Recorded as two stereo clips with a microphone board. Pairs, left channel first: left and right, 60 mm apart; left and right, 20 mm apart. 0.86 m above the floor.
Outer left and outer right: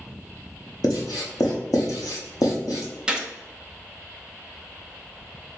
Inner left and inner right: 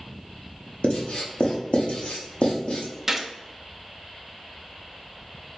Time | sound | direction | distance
0.8 | writing | 85° left | 1.0 m
3.1 | a gunshot | 15° right (ahead or behind) | 0.7 m